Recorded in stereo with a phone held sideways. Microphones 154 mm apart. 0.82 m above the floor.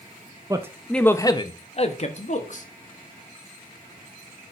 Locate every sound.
0.5 s a man speaking: 25° right (ahead or behind), 0.7 m; by 2.6 s 55° left (ahead or behind), 1.7 m